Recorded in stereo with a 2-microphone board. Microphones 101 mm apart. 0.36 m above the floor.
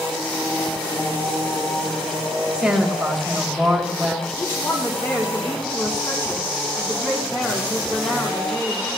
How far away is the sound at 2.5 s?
About 2 m.